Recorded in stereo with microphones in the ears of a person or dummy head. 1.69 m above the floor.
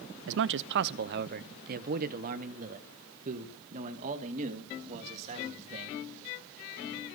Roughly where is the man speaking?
Right.